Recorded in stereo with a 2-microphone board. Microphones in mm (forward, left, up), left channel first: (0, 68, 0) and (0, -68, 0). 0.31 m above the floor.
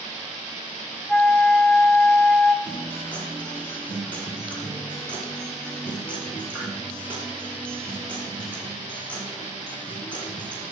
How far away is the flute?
About 0.6 m.